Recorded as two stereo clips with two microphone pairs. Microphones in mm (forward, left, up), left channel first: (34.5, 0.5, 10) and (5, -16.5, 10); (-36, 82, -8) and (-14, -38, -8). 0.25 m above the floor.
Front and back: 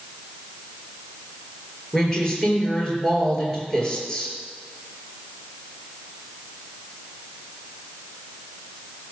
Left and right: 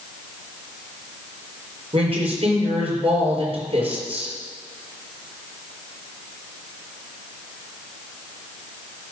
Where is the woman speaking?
40° right, 4.5 m.